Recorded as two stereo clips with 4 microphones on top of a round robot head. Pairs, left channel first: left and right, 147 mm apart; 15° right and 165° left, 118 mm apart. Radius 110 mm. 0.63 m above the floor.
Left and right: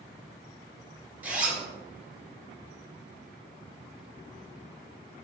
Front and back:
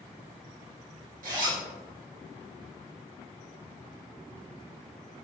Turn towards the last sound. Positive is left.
turn(degrees=-170)